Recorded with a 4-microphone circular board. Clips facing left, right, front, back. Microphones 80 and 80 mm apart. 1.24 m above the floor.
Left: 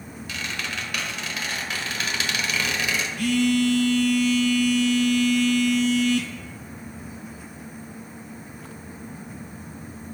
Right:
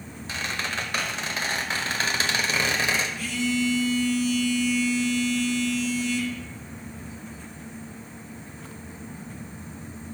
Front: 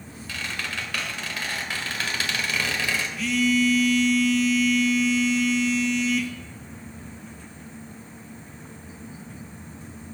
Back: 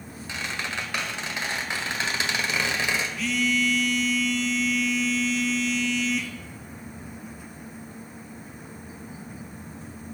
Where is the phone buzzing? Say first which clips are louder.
Left 6 dB, front 6 dB; 90° left, 0.8 m.